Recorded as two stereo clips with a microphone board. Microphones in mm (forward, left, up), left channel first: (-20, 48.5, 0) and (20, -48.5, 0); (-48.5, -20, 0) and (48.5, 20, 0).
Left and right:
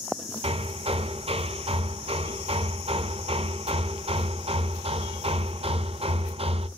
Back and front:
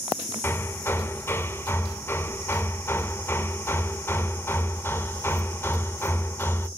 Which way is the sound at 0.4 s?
90° right.